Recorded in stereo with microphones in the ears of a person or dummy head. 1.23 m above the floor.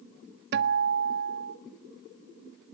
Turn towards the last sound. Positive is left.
turn(degrees=-55)  # may be behind; listen again after turning